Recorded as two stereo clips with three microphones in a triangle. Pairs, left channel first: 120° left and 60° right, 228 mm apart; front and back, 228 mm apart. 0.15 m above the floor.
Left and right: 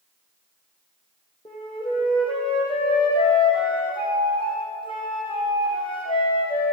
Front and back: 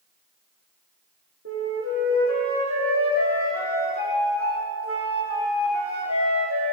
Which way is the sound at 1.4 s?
170° right.